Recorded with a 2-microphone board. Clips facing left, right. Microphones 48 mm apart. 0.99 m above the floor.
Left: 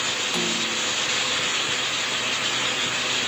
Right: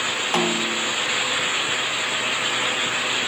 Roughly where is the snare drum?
Right.